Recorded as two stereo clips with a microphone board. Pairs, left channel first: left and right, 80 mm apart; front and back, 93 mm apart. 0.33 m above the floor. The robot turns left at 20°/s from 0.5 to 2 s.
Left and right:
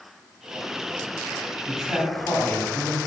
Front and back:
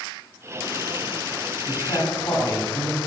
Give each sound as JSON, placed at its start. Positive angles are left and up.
{"t": 1.7, "sound": "a man speaking", "azimuth_deg": 10, "distance_m": 1.8}